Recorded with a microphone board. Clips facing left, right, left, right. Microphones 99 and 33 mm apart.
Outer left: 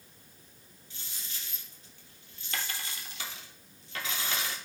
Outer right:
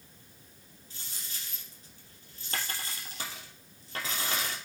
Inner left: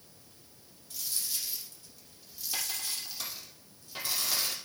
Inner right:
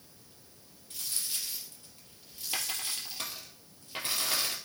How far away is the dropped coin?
About 2.5 m.